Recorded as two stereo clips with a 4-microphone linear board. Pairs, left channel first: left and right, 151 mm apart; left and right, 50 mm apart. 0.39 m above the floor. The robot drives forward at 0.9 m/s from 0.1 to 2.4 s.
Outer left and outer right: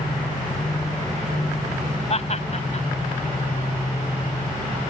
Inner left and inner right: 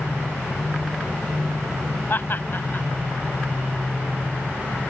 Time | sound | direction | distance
2.1 | laughter | 45° left (ahead or behind) | ?